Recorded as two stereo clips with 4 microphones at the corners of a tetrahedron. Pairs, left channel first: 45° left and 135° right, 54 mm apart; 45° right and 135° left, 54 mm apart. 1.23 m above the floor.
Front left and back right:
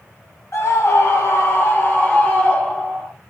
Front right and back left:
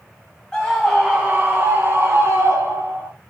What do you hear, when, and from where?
0.5 s a scream: 25° left, 0.7 m; by 3.1 s 115° left, 1.5 m